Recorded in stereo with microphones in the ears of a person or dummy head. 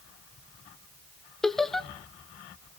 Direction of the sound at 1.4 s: 15° left (ahead or behind).